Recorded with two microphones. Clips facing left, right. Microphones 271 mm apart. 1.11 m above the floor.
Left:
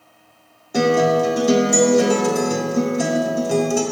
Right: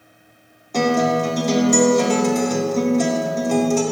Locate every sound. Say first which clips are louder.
0.7 s a guitar: left 2 dB; 10° left (ahead or behind), 0.8 m